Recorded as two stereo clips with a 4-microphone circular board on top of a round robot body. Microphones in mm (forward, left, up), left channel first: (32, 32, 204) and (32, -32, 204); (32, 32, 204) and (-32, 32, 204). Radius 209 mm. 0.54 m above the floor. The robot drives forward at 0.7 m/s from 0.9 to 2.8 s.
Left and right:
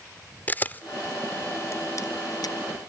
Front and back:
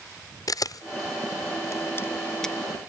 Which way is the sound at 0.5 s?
25° left.